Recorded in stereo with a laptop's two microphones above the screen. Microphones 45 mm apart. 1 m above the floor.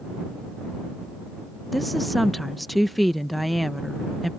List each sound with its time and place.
1.7 s a woman speaking: centre (ahead or behind)